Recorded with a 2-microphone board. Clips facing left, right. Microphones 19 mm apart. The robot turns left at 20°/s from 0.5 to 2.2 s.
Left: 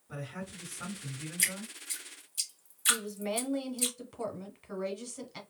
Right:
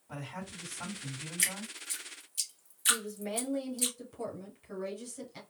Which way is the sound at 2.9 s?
25° left (ahead or behind).